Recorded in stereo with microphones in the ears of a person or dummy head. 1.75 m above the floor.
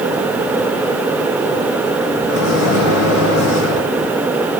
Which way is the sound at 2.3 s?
75° left (ahead or behind).